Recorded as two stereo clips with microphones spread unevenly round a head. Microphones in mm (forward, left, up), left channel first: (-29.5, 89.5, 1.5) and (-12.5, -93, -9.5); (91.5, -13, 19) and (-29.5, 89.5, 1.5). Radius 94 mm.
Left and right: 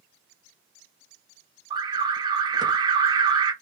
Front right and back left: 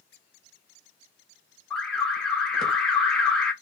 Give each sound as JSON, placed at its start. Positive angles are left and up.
{"t": 1.7, "sound": "an alarm", "azimuth_deg": -135, "distance_m": 0.7}